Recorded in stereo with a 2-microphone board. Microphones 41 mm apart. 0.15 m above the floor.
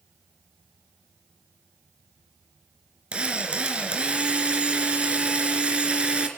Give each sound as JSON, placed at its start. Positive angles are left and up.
{"t": 3.1, "sound": "a drill", "side_deg": -30, "distance_m": 3.0}